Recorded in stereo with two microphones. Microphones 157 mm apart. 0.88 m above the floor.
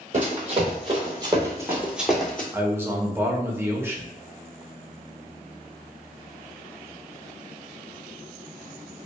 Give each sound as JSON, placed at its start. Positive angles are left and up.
{"t": 0.1, "sound": "running footsteps", "side_deg": -50, "distance_m": 1.3}
{"t": 2.5, "sound": "a man speaking", "side_deg": -15, "distance_m": 0.6}